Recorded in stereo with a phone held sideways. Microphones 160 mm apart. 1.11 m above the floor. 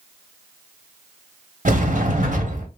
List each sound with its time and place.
1.6 s a sliding door: 55° right (ahead or behind), 1.1 m